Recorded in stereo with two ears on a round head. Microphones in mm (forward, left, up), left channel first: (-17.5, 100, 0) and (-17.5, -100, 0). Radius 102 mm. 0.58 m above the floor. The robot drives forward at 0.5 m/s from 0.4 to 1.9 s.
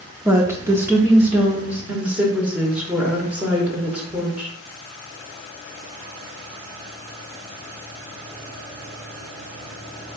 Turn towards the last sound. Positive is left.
turn(degrees=-5)  # may be behind; listen again after turning